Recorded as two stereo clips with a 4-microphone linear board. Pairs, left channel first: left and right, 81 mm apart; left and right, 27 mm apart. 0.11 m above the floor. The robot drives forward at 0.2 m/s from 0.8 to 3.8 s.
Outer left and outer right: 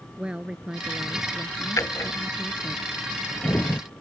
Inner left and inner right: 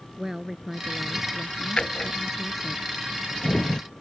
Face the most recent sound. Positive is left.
turn(degrees=30)  # may be behind; listen again after turning